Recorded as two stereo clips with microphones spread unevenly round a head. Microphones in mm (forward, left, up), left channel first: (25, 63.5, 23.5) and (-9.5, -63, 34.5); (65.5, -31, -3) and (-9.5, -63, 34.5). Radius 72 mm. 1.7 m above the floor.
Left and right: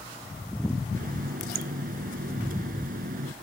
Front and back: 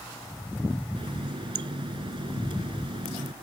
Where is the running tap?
135° right.